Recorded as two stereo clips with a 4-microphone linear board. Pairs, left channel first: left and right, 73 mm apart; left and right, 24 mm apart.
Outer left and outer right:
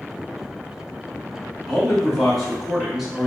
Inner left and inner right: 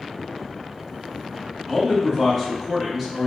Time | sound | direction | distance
1.7 | a man speaking | 10° left (ahead or behind) | 1.1 m